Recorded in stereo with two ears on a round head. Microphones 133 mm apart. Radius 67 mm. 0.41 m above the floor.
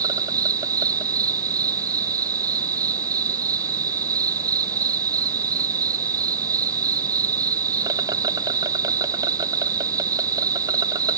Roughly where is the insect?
Right.